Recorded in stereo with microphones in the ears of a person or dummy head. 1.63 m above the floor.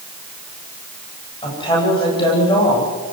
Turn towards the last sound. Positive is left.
turn(degrees=30)  # may be behind; listen again after turning